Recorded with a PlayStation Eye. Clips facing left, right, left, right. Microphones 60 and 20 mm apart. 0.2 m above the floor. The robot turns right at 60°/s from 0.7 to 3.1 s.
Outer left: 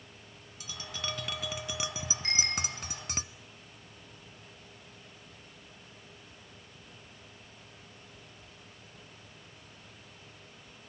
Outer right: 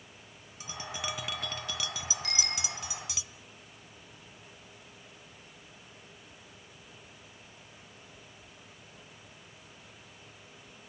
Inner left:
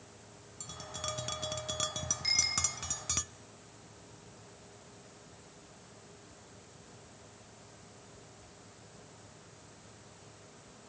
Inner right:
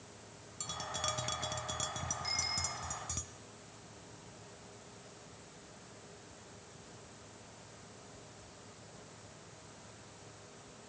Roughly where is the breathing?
I don't hear breathing.